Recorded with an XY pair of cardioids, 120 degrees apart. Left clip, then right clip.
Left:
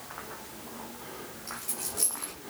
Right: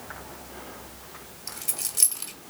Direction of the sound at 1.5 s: 55° right.